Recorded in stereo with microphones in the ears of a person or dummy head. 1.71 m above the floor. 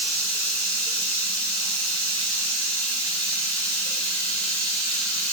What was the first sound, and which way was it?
Running water, 10° left (ahead or behind).